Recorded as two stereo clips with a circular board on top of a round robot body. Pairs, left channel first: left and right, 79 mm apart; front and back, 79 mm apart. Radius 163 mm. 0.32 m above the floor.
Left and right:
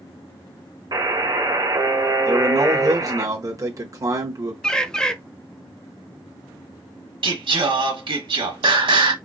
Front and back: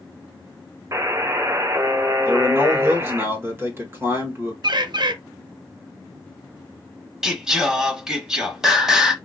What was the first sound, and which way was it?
A buzzer, 130° right.